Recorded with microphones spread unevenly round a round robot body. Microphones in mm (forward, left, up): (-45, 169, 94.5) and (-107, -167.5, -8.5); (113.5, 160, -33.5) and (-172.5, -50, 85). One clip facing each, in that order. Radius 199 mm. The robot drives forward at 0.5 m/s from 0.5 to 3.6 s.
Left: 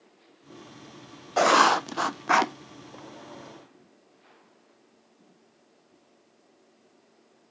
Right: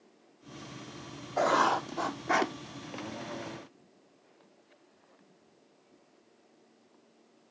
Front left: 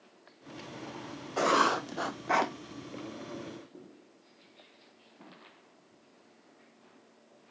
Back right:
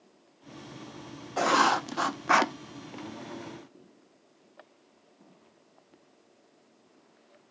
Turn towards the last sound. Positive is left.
turn(degrees=165)